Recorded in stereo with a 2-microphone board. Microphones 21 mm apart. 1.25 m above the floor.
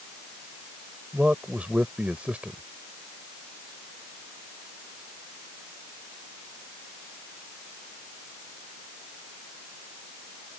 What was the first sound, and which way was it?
A man speaking, 90° right.